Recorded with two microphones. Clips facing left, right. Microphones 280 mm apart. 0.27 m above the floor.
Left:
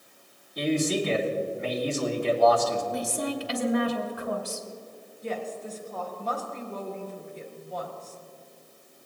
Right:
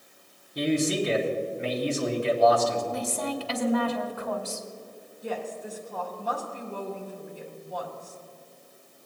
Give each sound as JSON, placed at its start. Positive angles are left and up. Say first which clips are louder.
{"t": 0.6, "sound": "a man speaking", "louder": "right 1 dB", "side_deg": -35, "distance_m": 2.5}
{"t": 2.9, "sound": "a woman speaking", "louder": "left 1 dB", "side_deg": 15, "distance_m": 1.6}
{"t": 5.2, "sound": "a woman speaking", "louder": "even", "side_deg": -10, "distance_m": 3.5}